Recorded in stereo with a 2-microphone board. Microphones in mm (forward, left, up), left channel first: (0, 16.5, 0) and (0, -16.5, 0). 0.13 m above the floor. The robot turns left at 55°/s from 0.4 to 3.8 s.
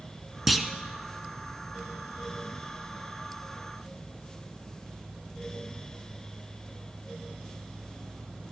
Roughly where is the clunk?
Centre.